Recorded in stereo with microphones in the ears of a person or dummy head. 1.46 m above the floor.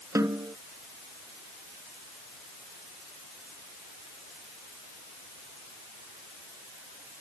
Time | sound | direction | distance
0.1 | a snare drum | 20° right (ahead or behind) | ?